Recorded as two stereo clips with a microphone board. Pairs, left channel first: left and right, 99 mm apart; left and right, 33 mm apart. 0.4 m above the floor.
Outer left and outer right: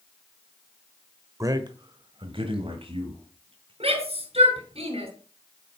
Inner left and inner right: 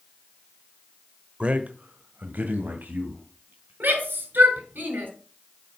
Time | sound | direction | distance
1.4 | a man speaking | 35° right (ahead or behind) | 1.1 m
3.8 | a shout | 80° right | 5.5 m